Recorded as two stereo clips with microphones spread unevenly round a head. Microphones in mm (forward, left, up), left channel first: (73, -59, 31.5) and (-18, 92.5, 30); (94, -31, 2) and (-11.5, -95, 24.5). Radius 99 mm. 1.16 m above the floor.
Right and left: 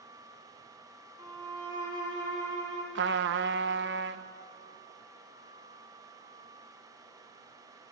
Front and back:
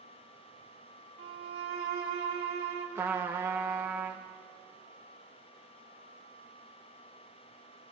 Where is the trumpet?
130° left, 0.9 m.